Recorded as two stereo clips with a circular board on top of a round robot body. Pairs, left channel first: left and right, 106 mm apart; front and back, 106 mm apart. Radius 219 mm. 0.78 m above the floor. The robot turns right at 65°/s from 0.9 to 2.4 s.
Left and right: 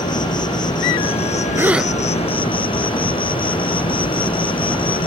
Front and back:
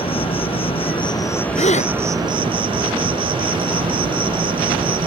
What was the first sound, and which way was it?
An insect, 40° left.